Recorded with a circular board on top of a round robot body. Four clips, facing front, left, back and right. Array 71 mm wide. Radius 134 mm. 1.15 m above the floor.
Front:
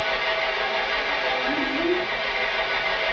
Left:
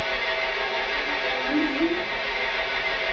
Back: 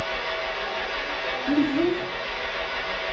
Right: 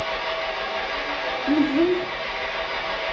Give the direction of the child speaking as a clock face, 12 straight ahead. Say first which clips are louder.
Right 6 dB, back 6 dB; 4 o'clock.